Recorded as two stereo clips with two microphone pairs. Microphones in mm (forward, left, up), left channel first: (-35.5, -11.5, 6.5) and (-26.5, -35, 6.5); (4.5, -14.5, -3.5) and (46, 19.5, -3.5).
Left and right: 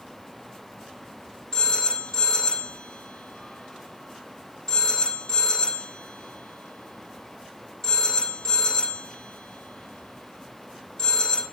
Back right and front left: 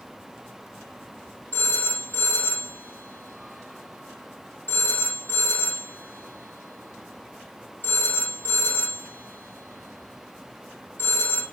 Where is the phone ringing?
170° left, 3.5 m.